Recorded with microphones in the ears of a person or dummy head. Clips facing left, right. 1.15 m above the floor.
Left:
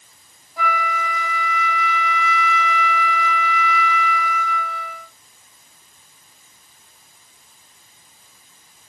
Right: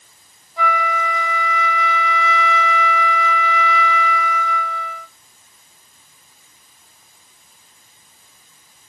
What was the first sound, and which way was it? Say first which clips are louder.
A flute: right 3 dB; centre (ahead or behind).